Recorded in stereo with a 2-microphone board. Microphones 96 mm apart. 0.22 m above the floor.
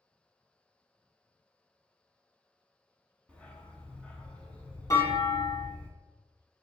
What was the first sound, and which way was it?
A dog barking, 15° left (ahead or behind).